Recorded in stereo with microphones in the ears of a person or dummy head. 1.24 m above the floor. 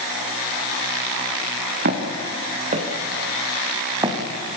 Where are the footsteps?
60° right (ahead or behind), 4.5 m; by 4.2 s 25° right (ahead or behind), 4 m.